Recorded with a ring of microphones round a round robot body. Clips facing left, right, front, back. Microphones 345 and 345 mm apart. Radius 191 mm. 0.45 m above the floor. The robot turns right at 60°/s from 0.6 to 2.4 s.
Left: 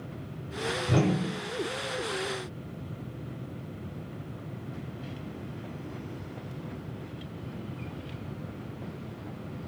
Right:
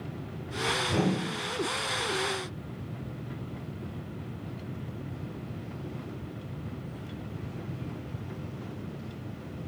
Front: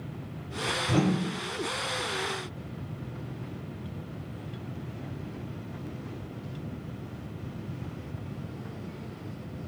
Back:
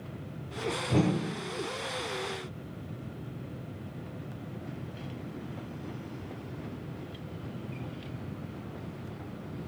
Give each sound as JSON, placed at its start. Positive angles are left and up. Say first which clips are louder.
{"t": 0.9, "sound": "a whoosh", "louder": "left 2 dB, front 2 dB", "azimuth_deg": 55, "distance_m": 0.7}